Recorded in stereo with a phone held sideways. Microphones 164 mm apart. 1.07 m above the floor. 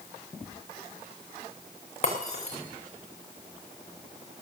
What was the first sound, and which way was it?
Breaking glass, 45° left (ahead or behind).